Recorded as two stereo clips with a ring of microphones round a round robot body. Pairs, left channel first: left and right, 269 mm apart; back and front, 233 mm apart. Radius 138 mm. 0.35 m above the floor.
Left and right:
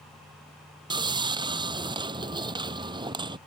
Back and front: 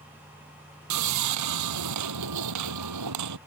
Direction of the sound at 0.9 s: 15° right.